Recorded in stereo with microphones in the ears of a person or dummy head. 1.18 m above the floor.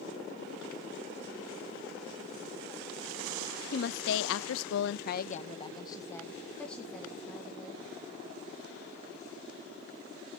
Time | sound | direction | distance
3.7 | a woman speaking | 55° left (ahead or behind) | 0.8 m